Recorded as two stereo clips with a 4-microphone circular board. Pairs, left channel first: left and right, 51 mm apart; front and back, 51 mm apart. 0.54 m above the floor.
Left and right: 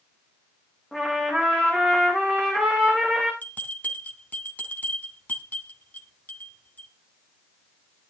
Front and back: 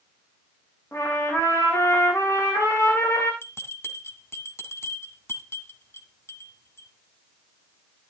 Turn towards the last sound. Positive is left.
turn(degrees=35)